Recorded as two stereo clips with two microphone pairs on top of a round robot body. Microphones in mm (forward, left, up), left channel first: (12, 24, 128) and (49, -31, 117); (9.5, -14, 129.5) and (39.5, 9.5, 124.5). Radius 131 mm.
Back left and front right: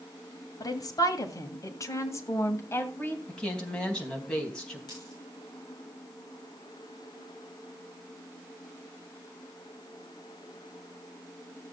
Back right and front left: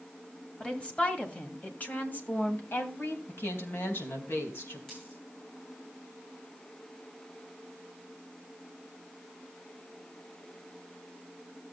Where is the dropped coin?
150° left, 9.5 m.